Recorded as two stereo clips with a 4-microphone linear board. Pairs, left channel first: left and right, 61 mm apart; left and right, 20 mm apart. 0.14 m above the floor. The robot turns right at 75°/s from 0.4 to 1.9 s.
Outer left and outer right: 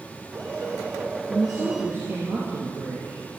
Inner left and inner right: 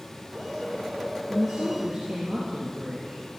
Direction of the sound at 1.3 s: 170° left.